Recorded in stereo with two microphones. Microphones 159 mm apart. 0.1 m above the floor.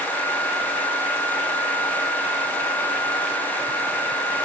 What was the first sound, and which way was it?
Only background noise.